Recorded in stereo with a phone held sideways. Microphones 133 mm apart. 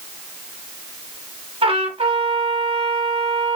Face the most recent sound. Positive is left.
turn(degrees=-45)  # may be behind; listen again after turning